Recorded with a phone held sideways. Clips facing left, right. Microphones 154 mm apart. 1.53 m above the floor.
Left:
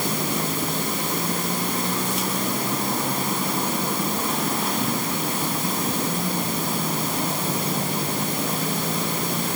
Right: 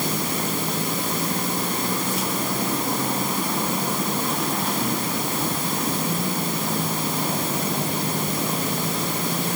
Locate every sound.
Only background noise.